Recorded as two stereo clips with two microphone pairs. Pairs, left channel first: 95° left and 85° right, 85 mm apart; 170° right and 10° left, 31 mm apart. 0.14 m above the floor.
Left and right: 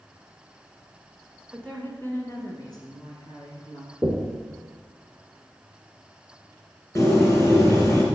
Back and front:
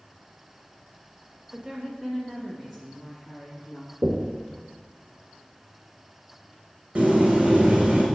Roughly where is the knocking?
Ahead left.